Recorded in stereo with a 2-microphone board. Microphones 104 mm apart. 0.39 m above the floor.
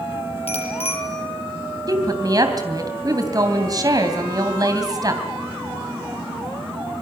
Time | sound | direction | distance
0.5 | a bicycle bell | 75° left (ahead or behind) | 7 m
1.9 | a woman speaking | 40° right (ahead or behind) | 2.5 m